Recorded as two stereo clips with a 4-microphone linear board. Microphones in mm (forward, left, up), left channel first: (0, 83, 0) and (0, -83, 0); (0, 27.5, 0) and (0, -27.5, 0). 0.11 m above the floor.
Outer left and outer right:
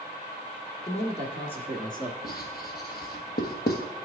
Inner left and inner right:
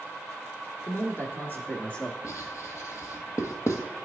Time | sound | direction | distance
0.9 | a man speaking | 45° left (ahead or behind) | 1.5 m
2.2 | writing | 65° left (ahead or behind) | 1.2 m